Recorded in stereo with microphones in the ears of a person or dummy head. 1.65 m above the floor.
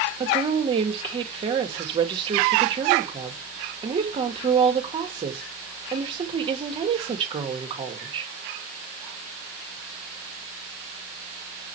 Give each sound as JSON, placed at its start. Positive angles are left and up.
{"t": 0.2, "sound": "a woman speaking", "side_deg": -30, "distance_m": 2.0}